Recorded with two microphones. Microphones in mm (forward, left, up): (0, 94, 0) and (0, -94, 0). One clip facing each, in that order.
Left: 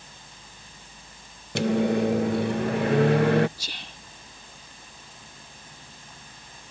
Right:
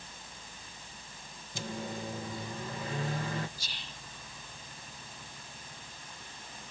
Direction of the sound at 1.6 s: 70° left (ahead or behind).